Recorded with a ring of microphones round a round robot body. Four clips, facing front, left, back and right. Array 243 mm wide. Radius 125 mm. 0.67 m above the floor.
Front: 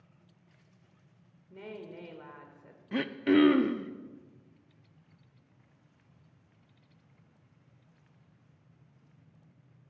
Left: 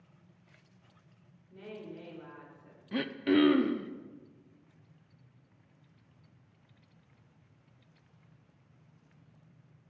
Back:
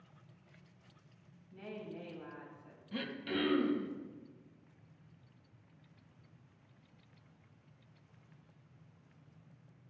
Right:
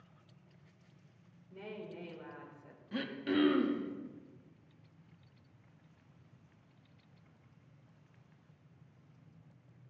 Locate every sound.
1.5 s a woman speaking: 10° right, 3 m
2.9 s throat clearing: 25° left, 0.6 m